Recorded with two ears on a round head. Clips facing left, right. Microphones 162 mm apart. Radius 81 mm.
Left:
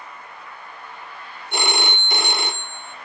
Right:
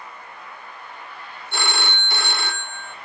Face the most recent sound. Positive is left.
turn(degrees=15)  # may be behind; listen again after turning